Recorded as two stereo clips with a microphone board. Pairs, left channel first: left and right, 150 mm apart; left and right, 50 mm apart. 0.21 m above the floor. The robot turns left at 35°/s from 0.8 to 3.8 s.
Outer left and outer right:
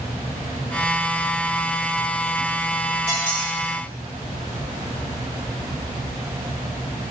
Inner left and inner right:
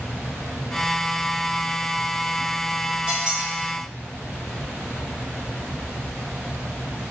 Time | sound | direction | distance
3.1 | a squeak | 20° right (ahead or behind) | 1.7 m